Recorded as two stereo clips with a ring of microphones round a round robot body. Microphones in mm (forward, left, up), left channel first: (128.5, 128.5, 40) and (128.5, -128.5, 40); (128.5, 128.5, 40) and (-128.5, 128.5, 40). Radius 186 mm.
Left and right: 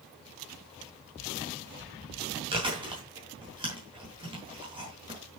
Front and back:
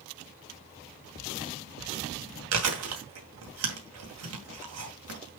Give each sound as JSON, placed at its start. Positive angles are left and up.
{"t": 2.5, "sound": "chewing", "azimuth_deg": -165, "distance_m": 2.0}